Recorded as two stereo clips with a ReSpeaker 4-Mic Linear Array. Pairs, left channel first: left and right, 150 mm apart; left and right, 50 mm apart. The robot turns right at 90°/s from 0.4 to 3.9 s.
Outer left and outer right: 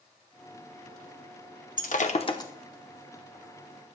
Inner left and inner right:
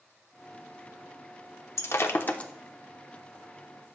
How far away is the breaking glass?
About 0.9 m.